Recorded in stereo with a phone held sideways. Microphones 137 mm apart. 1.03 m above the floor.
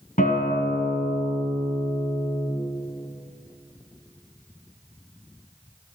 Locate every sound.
0.2 s a guitar: 70° left (ahead or behind), 2 m